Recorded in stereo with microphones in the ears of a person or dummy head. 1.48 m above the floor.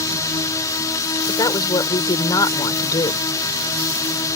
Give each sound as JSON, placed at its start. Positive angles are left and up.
{"t": 0.0, "sound": "a drone", "side_deg": 15}
{"t": 1.3, "sound": "a woman speaking", "side_deg": 25}